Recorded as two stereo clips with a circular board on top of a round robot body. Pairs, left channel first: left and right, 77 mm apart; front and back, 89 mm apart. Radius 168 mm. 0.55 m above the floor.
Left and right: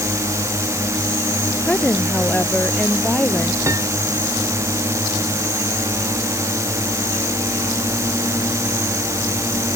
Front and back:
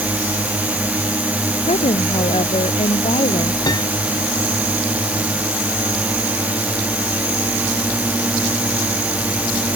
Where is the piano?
40° right.